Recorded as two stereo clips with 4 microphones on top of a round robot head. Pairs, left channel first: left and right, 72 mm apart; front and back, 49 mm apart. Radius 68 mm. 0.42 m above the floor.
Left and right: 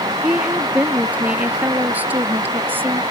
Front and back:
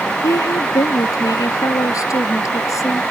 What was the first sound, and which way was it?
A woman speaking, 15° right.